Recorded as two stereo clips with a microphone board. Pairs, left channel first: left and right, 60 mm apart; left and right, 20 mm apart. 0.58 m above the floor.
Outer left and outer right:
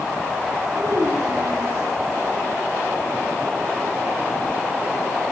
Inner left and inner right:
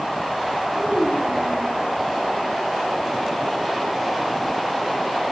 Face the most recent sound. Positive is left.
turn(degrees=-75)  # may be behind; listen again after turning